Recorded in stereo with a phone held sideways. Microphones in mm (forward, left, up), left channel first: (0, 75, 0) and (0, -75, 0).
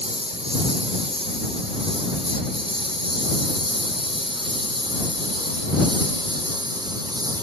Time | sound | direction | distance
0.0 | a lawn mower | 45° right (ahead or behind) | ?